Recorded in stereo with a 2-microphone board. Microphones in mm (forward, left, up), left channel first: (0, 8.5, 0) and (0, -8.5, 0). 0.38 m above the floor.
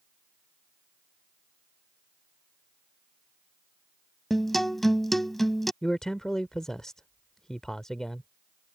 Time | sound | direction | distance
4.3 | a guitar | 5° left (ahead or behind) | ?
5.8 | a man speaking | 30° left (ahead or behind) | ?